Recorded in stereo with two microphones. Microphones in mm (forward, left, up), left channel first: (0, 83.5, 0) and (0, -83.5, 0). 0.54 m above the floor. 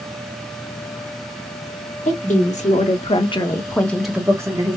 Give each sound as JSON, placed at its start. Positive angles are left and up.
{"t": 2.0, "sound": "a woman speaking", "side_deg": 50, "distance_m": 1.3}